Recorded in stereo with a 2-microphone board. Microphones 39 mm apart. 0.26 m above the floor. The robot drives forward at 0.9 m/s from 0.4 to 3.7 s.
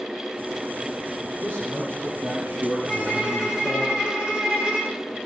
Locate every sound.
1.4 s a man speaking: 65° right (ahead or behind), 4.5 m; by 3.9 s 75° right (ahead or behind), 4.5 m
2.9 s a violin: 25° right (ahead or behind), 5 m